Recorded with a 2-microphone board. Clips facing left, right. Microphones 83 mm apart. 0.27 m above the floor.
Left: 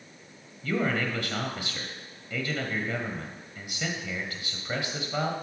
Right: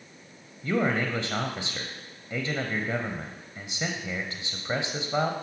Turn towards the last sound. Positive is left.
turn(degrees=-25)  # may be behind; listen again after turning